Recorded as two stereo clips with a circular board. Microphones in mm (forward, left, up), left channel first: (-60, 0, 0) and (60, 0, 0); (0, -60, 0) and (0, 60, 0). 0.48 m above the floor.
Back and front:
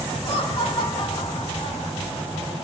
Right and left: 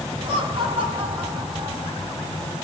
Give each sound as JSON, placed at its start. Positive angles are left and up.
{"t": 0.2, "sound": "laughter", "azimuth_deg": 135, "distance_m": 4.0}